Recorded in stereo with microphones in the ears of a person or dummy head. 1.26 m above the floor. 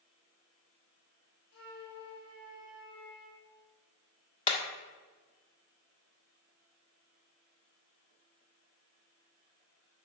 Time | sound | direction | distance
1.5 | a flute | 75° left (ahead or behind) | 2.5 m
4.5 | hammering | 30° left (ahead or behind) | 1.5 m